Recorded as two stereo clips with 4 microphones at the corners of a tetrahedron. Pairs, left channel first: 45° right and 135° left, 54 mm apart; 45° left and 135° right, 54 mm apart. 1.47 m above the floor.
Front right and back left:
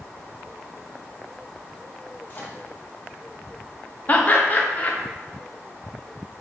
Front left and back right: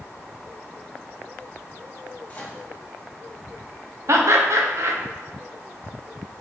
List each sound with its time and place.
2.3 s a microwave: 10° right, 0.9 m
4.1 s laughter: 100° right, 0.7 m